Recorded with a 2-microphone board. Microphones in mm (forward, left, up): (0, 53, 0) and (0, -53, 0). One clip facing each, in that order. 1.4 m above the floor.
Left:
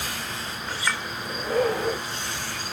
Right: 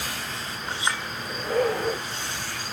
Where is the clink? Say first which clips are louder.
Right 1 dB; 25° right (ahead or behind), 4 m.